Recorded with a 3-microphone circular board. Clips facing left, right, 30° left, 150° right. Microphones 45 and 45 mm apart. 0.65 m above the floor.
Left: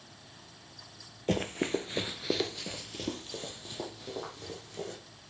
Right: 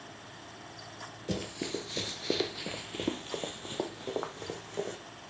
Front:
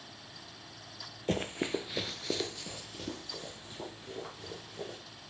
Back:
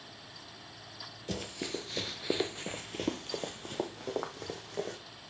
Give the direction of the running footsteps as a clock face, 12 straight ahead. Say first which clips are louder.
Left 6 dB, front 6 dB; 10 o'clock.